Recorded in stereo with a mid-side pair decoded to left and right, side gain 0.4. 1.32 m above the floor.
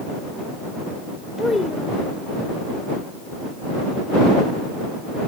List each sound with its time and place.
1.4 s a child speaking: 25° left